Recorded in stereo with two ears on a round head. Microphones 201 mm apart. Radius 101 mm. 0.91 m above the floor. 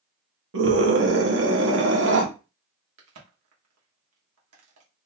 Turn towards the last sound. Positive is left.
turn(degrees=-80)